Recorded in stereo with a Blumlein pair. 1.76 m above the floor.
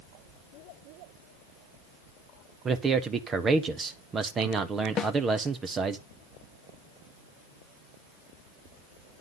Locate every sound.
2.6 s a man speaking: 20° right, 1.1 m
5.0 s a snare drum: 20° left, 1.2 m